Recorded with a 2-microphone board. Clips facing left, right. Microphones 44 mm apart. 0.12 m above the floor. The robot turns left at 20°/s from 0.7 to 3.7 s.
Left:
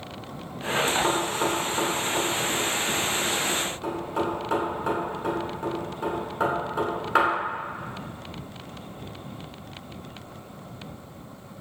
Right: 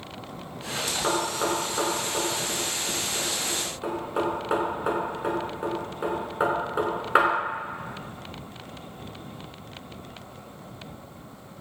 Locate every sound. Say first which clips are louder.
1.0 s knocking: left 1 dB; 5° left (ahead or behind), 0.8 m; by 7.3 s 15° right (ahead or behind), 0.8 m